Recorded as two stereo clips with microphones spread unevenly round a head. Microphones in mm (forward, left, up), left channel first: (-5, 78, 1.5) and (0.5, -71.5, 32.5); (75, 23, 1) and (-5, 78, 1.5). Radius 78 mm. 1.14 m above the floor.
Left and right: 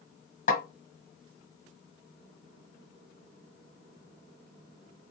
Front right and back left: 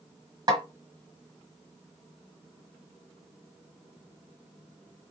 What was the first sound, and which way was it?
A snare drum, 125° left.